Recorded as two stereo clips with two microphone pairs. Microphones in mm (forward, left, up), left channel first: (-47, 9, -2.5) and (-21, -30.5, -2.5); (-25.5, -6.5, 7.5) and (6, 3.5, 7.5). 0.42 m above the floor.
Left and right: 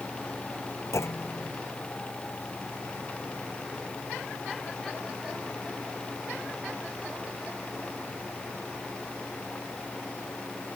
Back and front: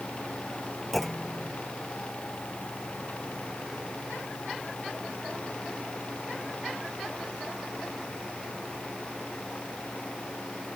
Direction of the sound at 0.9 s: 110° left.